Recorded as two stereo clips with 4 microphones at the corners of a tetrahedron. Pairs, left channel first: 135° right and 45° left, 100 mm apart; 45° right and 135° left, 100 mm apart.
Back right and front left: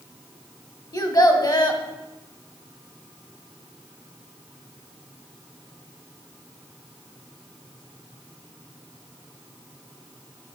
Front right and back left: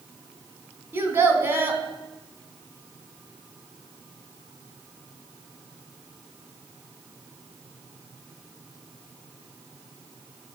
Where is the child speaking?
165° right, 1.0 m.